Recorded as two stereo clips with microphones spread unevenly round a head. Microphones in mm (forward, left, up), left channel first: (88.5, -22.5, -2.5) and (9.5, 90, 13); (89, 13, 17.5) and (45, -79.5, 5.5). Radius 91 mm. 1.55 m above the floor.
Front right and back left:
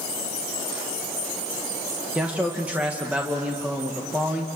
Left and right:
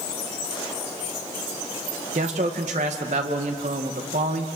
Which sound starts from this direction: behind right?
A man speaking, at 2.1 s.